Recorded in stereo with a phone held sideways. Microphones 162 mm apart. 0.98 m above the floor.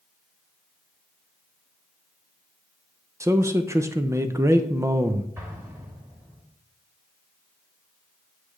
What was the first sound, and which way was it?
A man speaking, 20° right (ahead or behind).